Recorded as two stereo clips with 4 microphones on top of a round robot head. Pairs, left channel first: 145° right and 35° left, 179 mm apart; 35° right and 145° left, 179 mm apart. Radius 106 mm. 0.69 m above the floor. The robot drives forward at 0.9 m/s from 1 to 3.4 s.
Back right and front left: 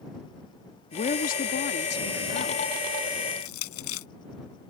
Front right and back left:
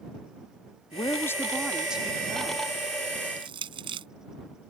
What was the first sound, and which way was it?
A woman speaking, 100° right.